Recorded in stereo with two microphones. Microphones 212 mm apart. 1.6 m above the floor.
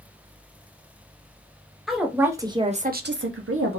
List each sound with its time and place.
1.9 s a woman speaking: centre (ahead or behind), 1.0 m; by 3.8 s 80° right, 0.7 m